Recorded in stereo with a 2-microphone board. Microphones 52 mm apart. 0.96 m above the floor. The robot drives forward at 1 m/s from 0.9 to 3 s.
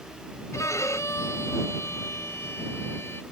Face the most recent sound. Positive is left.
turn(degrees=50)  # may be behind; listen again after turning